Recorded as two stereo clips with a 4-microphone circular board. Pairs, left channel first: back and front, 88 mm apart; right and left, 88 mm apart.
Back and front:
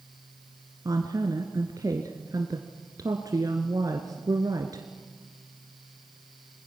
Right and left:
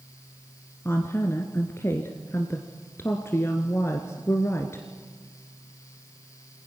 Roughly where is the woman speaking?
Ahead right.